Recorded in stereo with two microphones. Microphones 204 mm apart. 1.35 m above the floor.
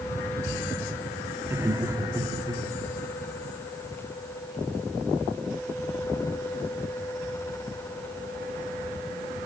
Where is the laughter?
10° right (ahead or behind), 2.5 m; by 2.6 s 25° right (ahead or behind), 3.5 m.